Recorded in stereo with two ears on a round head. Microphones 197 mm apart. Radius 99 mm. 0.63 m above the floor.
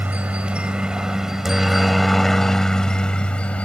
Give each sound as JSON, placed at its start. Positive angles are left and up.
{"t": 0.0, "sound": "a helicopter", "side_deg": -5}